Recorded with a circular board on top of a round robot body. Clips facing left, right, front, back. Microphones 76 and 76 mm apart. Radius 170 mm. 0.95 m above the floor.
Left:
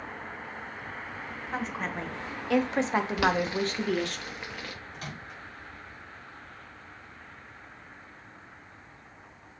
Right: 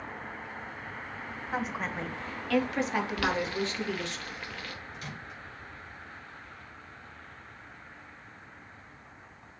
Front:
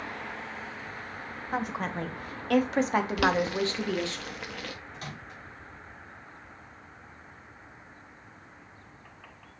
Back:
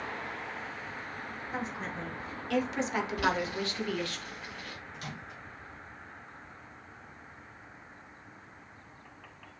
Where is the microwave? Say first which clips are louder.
Left 1 dB, front 1 dB; 50° left, 3 m.